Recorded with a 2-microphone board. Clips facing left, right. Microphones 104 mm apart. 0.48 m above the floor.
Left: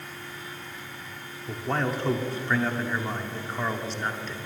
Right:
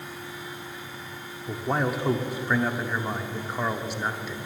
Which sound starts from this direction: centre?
A man speaking, at 1.5 s.